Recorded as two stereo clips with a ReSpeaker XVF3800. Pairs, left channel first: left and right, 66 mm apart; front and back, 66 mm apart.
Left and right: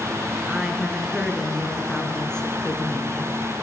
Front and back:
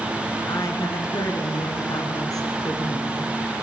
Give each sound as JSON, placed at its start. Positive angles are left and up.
{"t": 0.5, "sound": "a woman speaking", "azimuth_deg": -15, "distance_m": 4.5}